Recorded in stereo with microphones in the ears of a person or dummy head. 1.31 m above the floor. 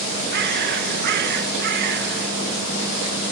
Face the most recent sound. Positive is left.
turn(degrees=-55)  # may be behind; listen again after turning